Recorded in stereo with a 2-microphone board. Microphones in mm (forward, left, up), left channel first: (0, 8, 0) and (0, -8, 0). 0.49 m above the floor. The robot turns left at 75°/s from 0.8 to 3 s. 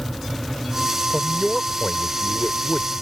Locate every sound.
1.1 s a man speaking: 140° right; by 2.9 s 85° left